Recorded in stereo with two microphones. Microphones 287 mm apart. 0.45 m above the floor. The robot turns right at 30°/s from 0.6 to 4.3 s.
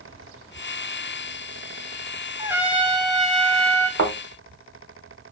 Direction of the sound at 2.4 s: 10° right (ahead or behind).